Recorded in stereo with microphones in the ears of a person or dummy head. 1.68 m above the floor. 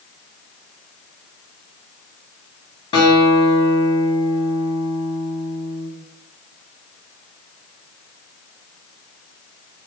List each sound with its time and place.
2.9 s a guitar: 25° left (ahead or behind), 3.5 m